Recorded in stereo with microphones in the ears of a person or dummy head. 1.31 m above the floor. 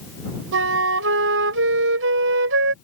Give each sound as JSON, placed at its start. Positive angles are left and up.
{"t": 0.5, "sound": "a flute", "side_deg": -65}